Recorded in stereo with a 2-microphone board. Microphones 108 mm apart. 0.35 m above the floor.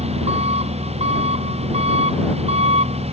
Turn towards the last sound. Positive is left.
turn(degrees=-70)  # may be behind; listen again after turning